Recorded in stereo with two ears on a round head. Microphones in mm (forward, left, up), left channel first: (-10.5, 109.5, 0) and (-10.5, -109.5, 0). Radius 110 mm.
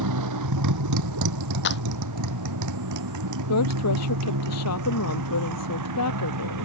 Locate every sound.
0.0 s a motorcycle: 85° right
1.6 s a clap: 45° left (ahead or behind)
3.5 s a woman speaking: 75° left (ahead or behind)